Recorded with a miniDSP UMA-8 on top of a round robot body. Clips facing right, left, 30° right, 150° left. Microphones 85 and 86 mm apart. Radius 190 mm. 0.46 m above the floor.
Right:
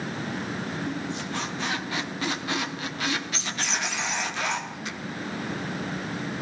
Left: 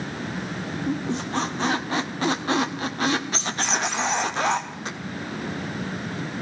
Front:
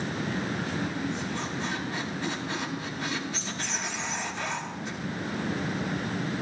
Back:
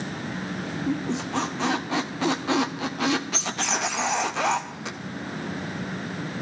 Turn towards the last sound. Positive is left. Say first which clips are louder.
# left 5 dB, back 5 dB
turn(degrees=145)